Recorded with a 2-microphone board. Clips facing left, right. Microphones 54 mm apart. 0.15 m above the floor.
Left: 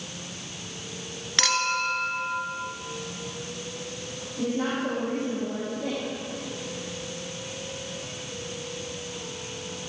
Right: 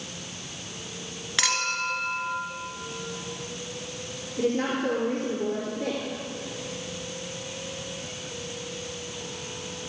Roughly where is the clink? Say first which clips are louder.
Left 2 dB; centre.